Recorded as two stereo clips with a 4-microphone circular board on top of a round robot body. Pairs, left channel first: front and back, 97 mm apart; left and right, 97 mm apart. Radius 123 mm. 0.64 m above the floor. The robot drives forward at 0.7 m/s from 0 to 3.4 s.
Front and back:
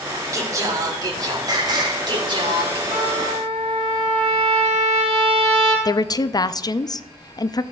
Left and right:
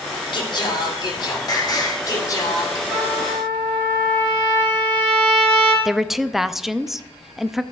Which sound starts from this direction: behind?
A trumpet, at 2.9 s.